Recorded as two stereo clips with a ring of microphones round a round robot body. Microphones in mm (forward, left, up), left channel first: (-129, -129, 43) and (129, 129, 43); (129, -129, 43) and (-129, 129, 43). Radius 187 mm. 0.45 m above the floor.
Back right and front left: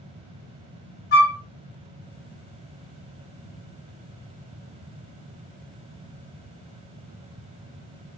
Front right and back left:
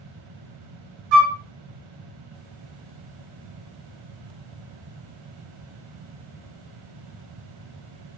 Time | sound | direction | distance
1.1 | a flute | 160° left | 1.4 m